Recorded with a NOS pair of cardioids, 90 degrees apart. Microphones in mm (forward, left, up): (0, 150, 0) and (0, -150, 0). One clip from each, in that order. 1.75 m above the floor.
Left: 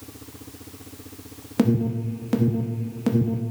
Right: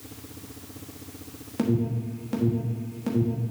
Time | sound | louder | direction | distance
1.6 | an alarm | left 4 dB | 40° left | 1.3 m